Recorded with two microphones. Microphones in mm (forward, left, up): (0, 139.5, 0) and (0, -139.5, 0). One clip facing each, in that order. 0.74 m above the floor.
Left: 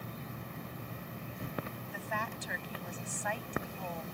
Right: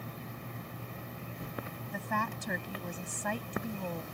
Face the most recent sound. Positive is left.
turn(degrees=-45)  # may be behind; listen again after turning